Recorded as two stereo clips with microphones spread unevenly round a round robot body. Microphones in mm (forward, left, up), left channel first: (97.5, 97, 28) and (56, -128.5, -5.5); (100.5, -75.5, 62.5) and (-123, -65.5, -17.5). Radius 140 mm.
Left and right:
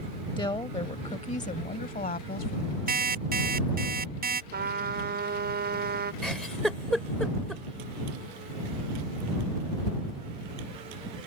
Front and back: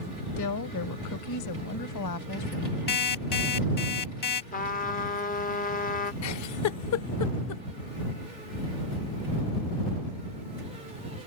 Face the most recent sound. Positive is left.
turn(degrees=-10)